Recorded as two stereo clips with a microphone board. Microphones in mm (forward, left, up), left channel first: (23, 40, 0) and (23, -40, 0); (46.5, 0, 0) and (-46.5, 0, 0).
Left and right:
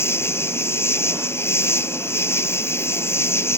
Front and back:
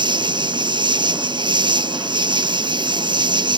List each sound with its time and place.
0.0 s an insect: 145° left